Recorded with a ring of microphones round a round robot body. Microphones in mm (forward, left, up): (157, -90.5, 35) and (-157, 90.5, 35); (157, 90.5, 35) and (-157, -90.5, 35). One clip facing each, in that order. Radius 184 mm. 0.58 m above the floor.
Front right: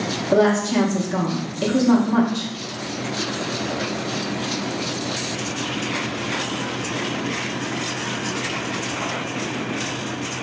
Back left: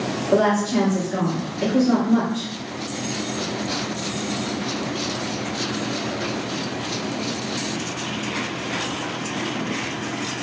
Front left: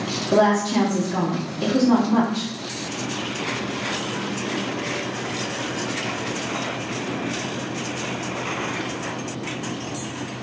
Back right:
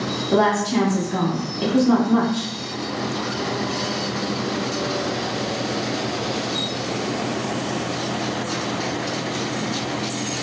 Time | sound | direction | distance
0.3 | a woman speaking | 75° right | 0.9 m